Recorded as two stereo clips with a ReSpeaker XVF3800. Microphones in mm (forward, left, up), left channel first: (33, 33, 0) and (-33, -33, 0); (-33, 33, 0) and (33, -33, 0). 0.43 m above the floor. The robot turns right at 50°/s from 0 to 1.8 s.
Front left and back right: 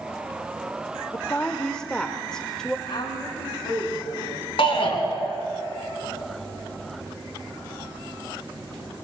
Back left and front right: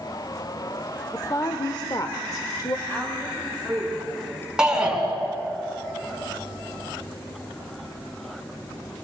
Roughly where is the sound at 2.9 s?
Ahead left.